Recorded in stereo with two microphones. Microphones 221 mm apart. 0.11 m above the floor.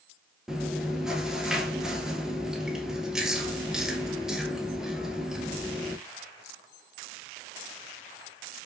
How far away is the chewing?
About 0.6 m.